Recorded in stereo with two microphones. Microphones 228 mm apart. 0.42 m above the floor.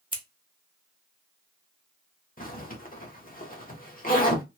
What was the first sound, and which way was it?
Scissors, 25° right (ahead or behind).